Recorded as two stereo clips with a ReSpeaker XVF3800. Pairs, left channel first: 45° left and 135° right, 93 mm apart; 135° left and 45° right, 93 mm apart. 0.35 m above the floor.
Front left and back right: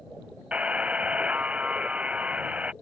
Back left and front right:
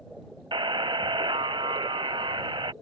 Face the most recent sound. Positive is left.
turn(degrees=-60)